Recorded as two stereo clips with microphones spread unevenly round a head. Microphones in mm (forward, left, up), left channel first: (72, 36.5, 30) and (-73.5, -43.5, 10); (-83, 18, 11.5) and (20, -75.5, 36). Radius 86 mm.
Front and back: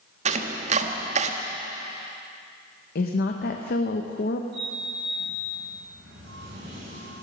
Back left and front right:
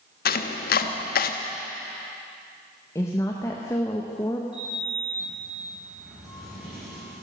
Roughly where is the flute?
No flute in this recording.